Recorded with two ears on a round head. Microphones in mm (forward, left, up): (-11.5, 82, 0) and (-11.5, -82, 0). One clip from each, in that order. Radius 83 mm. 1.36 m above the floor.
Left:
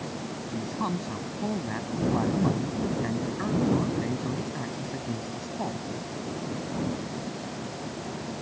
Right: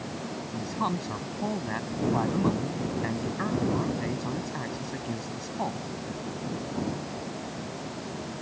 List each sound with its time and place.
0.5 s a man speaking: 35° right (ahead or behind)